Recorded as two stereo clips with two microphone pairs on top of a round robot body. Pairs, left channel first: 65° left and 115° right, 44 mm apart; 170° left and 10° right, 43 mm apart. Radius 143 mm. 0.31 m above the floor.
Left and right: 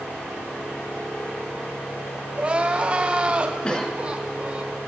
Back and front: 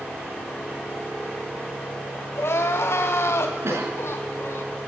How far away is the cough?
About 5.5 m.